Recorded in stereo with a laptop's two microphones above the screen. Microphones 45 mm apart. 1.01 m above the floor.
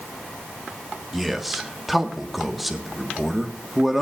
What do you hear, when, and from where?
1.1 s a man speaking: centre (ahead or behind), 1.4 m